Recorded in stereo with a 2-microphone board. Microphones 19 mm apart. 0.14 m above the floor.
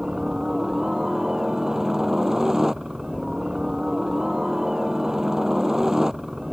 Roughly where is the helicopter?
Right.